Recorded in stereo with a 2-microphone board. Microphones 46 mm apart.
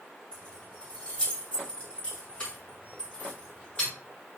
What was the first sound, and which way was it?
Keys jangling, 25° left (ahead or behind).